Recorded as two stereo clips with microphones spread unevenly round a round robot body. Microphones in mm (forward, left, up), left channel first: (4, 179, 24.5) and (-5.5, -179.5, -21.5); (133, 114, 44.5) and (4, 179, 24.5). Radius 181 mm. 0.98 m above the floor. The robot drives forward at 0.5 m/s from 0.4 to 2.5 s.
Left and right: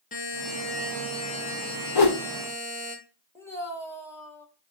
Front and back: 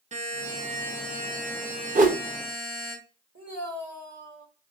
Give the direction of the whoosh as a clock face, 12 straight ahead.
8 o'clock.